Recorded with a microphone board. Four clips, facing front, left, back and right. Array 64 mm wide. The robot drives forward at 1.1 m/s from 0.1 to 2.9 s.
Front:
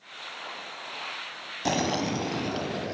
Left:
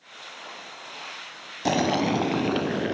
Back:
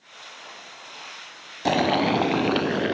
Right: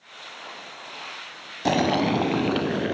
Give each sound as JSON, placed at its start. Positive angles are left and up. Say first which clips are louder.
{"t": 1.6, "sound": "boiling", "louder": "right 2 dB, back 6 dB", "azimuth_deg": -155, "distance_m": 0.9}